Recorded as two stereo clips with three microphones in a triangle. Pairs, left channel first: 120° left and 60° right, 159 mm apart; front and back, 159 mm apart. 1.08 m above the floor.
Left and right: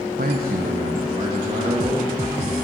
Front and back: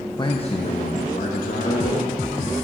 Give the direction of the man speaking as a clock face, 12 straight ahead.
2 o'clock.